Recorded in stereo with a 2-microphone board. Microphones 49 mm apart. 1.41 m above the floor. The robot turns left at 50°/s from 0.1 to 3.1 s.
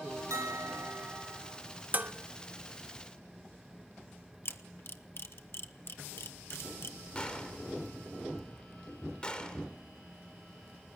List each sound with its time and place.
0.3 s a bell: 90° right, 6 m; by 1.4 s 145° right, 6 m
1.9 s dishes clattering: 35° right (ahead or behind), 1.0 m; by 2.1 s 40° right (ahead or behind), 1.0 m
4.5 s a camera shutter: 50° left (ahead or behind), 1.2 m
7.2 s a gunshot: 20° left (ahead or behind), 2.5 m